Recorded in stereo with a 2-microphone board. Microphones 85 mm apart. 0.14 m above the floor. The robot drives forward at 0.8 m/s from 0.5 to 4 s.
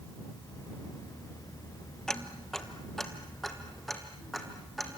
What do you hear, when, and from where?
2.1 s ticking: 5° left (ahead or behind), 1.3 m